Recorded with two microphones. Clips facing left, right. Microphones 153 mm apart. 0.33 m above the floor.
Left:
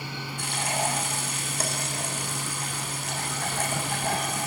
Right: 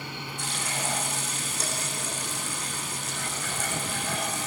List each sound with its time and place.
0.4 s frying: 60° left (ahead or behind), 7.5 m